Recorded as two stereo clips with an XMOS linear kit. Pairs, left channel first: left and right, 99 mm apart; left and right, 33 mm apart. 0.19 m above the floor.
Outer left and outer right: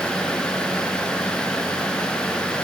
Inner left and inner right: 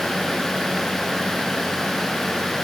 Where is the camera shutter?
No camera shutter in this recording.